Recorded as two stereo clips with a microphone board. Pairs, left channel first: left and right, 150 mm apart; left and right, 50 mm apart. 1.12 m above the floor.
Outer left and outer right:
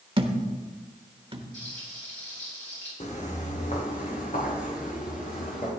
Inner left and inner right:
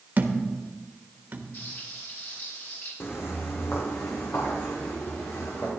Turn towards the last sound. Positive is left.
turn(degrees=65)  # may be behind; listen again after turning